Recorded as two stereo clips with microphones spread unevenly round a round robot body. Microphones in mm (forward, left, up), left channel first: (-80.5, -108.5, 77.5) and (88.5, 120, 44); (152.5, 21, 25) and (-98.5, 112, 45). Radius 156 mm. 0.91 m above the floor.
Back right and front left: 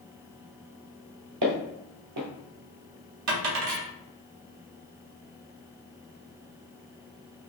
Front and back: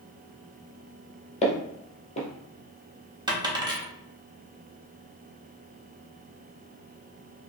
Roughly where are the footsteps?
Ahead left.